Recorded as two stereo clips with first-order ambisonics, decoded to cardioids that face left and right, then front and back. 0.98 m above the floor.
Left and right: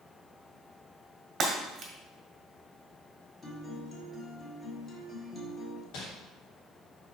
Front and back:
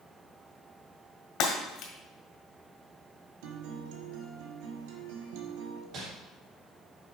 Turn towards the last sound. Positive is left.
turn(degrees=130)